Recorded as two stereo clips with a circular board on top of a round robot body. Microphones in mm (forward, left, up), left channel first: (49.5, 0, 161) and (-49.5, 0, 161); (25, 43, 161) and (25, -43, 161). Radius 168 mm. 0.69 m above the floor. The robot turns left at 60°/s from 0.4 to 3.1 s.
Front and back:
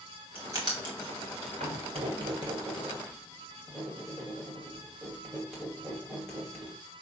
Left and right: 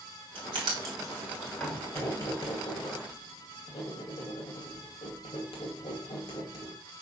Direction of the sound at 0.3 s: 115° right.